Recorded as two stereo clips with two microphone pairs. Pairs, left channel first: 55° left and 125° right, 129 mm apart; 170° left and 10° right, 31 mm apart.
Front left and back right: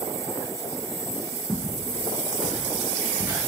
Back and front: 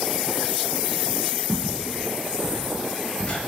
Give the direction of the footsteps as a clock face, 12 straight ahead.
11 o'clock.